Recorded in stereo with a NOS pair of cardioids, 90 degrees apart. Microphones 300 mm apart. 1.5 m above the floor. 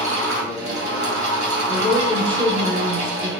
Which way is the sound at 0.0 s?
65° right.